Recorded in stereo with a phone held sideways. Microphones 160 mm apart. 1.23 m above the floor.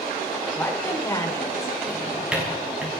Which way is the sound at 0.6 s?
15° left (ahead or behind).